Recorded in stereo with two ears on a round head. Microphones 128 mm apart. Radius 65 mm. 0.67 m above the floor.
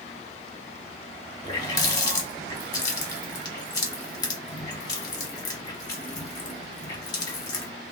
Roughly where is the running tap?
Left.